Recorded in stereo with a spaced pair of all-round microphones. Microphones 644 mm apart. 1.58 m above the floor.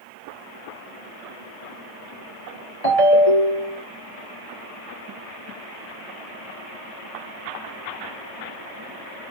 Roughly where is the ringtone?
Left.